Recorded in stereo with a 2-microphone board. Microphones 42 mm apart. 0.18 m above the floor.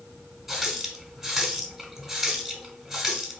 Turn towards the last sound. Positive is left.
turn(degrees=-5)  # may be behind; listen again after turning